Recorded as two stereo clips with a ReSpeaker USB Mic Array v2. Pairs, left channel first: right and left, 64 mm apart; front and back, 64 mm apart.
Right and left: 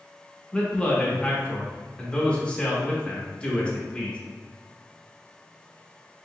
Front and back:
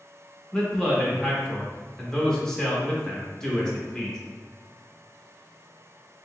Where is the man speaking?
60° right, 0.9 m.